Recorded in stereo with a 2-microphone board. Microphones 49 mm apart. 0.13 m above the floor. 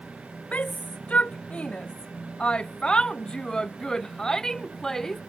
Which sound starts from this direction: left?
A shout, at 0.5 s.